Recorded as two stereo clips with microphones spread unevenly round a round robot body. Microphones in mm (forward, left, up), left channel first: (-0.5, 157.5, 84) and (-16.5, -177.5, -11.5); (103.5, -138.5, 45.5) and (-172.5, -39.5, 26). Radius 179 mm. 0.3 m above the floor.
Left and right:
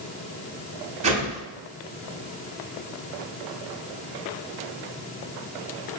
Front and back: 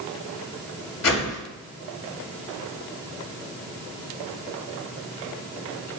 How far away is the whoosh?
About 2 m.